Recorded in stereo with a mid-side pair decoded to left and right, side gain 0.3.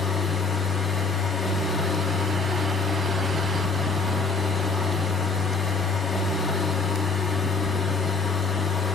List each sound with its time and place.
0.0 s a machine running: 55° left, 1.2 m